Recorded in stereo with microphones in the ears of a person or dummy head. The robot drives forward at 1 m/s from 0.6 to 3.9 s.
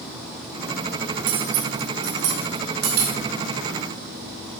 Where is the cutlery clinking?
85° right, 1.9 m; by 3.2 s 40° right (ahead or behind), 3 m.